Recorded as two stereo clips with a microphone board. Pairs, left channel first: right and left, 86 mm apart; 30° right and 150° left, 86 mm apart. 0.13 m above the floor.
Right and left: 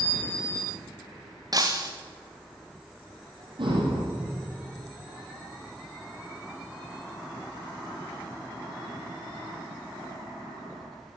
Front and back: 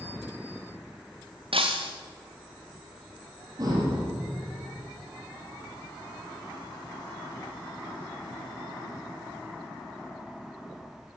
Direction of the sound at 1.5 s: 135° left.